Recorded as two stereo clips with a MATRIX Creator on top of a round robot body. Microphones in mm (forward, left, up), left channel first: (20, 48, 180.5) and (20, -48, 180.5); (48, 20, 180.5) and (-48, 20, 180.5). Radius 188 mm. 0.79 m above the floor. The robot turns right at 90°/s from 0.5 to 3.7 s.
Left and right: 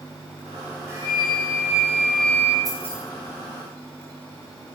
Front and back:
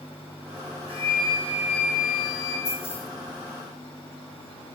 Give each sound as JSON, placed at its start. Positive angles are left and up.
{"t": 0.9, "sound": "a flute", "azimuth_deg": -155, "distance_m": 4.0}
{"t": 2.6, "sound": "keys jangling", "azimuth_deg": 0, "distance_m": 6.0}